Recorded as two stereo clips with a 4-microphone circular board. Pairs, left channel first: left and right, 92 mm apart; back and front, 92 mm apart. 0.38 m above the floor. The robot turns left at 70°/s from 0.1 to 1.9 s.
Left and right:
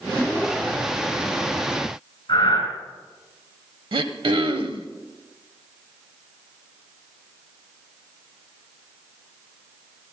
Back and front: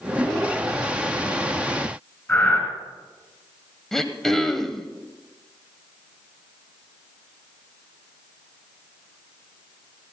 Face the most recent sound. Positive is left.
turn(degrees=-95)